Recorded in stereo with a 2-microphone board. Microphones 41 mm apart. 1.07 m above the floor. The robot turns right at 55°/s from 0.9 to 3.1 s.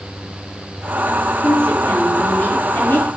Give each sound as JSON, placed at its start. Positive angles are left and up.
{"t": 1.4, "sound": "a woman speaking", "azimuth_deg": 35, "distance_m": 3.5}